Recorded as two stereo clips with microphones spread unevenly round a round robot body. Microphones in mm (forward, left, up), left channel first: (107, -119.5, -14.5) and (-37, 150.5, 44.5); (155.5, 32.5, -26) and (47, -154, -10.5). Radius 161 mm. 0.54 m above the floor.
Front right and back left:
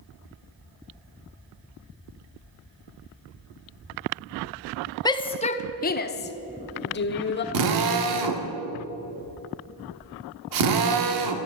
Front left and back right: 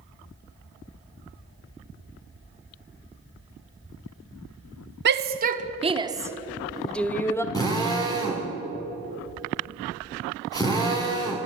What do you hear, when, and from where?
5.0 s a shout: 120° right, 0.9 m; by 7.4 s 15° right, 1.5 m
7.5 s a drill: 130° left, 1.5 m